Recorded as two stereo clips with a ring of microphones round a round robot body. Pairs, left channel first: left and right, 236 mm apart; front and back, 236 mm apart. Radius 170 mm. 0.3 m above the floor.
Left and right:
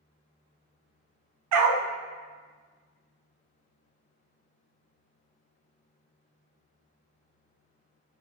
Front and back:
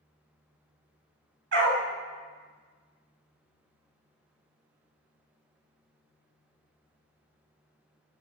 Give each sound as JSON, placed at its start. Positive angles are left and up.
{"t": 1.5, "sound": "a dog barking", "azimuth_deg": -120, "distance_m": 0.5}